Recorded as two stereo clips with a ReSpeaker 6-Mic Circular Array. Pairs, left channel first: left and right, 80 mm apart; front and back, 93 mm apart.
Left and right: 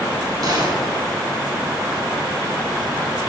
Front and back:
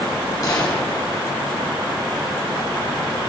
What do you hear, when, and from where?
0.4 s a gunshot: 50° right, 3 m